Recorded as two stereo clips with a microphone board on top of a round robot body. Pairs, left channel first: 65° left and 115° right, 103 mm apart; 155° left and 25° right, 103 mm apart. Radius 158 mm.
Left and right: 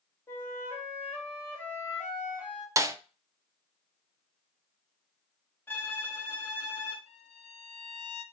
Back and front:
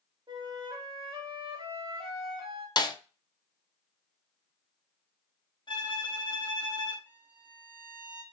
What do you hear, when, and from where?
0.3 s a flute: 5° left, 2.5 m
2.8 s a snare drum: 165° right, 0.8 m
5.7 s a violin: 135° left, 1.4 m
7.1 s a violin: 50° left, 1.0 m